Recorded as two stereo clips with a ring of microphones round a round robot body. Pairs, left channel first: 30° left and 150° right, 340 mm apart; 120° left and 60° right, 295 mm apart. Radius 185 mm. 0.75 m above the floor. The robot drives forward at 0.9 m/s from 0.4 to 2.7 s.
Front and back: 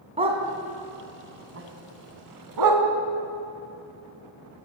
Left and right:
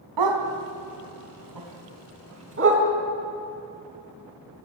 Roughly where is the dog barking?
Right.